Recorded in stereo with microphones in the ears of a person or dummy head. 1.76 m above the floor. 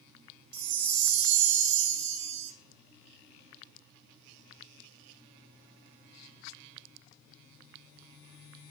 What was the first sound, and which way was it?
A chime, 65° right (ahead or behind).